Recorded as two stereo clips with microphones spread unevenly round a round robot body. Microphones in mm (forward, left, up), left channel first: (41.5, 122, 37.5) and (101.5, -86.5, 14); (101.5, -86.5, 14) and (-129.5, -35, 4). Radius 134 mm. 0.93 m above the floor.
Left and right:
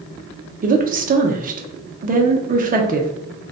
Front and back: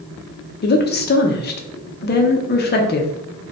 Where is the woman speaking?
45° right, 0.6 m.